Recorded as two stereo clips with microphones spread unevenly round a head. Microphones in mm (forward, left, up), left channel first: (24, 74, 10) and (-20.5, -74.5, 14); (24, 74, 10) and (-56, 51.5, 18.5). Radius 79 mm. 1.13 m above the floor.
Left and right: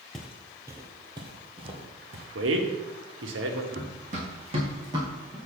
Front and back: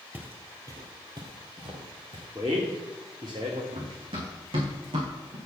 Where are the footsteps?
165° left, 1.2 m; by 2.2 s 155° right, 3 m.